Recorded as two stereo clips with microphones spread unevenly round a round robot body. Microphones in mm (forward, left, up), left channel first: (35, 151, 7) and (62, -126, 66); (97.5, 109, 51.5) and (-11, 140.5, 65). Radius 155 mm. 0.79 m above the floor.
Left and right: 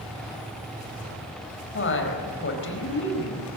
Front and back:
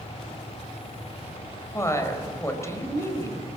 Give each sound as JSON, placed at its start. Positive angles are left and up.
{"t": 1.7, "sound": "a woman speaking", "azimuth_deg": 50, "distance_m": 4.5}